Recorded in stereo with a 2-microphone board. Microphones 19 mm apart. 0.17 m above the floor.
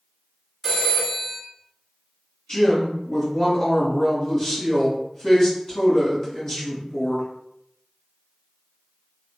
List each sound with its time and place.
0.6 s a phone ringing: centre (ahead or behind), 1.1 m
2.5 s a woman speaking: 30° left (ahead or behind), 1.7 m